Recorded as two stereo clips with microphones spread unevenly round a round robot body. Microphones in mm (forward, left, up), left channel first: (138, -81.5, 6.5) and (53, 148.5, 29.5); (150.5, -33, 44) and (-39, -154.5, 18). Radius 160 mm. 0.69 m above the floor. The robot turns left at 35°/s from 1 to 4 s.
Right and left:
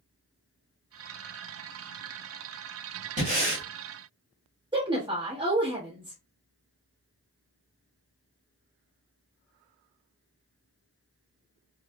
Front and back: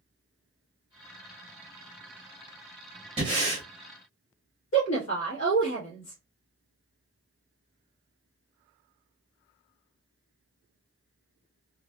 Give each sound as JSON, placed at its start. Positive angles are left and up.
{"t": 3.2, "sound": "breathing", "azimuth_deg": 165, "distance_m": 1.1}
{"t": 4.7, "sound": "a woman speaking", "azimuth_deg": 35, "distance_m": 1.2}